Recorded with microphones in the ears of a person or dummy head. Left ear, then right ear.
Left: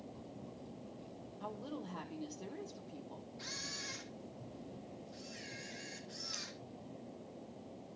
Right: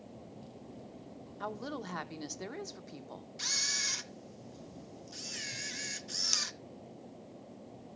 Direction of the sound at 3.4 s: 70° right (ahead or behind).